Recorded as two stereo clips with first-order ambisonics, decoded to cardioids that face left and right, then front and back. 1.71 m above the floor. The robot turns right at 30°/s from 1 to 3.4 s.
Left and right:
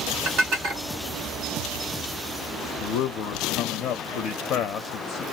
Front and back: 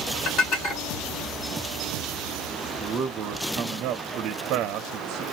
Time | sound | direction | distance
0.2 | dishes clattering | 55° right | 2 m
2.8 | a man speaking | 120° left | 0.6 m